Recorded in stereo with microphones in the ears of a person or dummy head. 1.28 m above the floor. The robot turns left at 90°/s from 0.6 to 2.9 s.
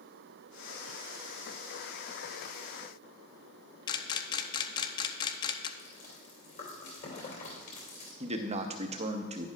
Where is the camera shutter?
20° left (ahead or behind), 0.6 m.